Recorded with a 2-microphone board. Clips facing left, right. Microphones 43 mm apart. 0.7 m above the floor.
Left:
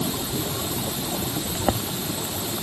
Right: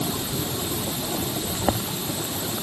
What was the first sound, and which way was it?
Only background noise.